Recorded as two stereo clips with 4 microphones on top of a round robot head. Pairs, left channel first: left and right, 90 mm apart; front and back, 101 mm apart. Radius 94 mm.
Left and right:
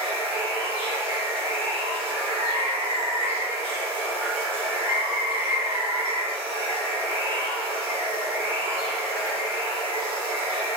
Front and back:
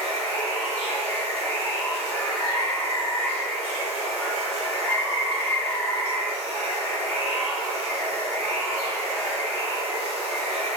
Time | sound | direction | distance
0.0 | running water | 120° right | 1.5 m